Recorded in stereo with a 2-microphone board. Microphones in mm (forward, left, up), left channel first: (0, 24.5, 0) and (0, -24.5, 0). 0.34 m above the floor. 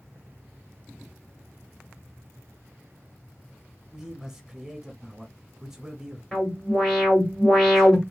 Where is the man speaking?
10° right (ahead or behind), 1.3 m.